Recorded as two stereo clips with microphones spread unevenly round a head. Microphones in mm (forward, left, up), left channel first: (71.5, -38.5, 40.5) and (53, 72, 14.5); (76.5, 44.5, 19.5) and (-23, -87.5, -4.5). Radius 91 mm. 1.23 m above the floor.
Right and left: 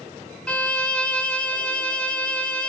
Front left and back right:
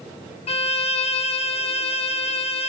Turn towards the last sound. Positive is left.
turn(degrees=0)